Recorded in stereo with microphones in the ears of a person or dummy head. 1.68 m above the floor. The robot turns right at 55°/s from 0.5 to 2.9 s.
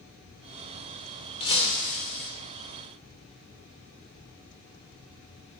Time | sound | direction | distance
1.4 | breaking glass | 40° left | 1.8 m